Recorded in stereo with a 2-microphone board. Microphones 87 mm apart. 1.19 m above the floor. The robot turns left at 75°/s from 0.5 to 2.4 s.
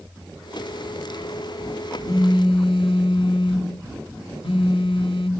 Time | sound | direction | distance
2.1 | a phone buzzing | 45° left (ahead or behind) | 3 m